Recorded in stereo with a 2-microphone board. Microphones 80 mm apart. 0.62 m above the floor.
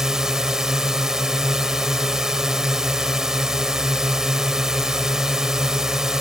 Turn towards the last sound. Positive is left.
turn(degrees=-5)  # may be behind; listen again after turning